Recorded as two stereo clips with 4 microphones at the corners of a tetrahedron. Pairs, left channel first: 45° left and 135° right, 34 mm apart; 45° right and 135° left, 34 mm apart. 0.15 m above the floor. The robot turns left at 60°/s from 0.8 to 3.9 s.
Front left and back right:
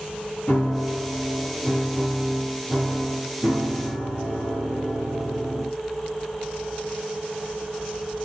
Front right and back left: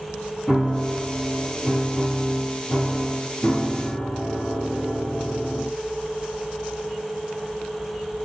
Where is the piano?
45° left, 2.5 m; by 5.8 s 140° right, 2.5 m.